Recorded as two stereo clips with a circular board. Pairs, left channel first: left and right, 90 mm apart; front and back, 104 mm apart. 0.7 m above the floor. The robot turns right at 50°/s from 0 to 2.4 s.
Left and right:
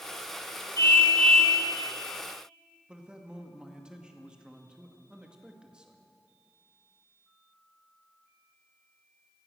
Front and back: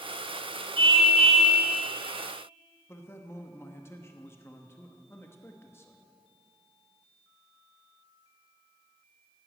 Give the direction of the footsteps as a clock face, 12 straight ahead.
No footsteps in this recording.